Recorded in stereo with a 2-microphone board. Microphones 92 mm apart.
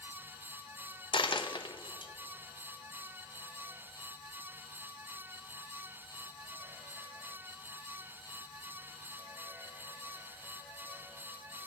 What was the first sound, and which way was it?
A dropped coin, 60° left (ahead or behind).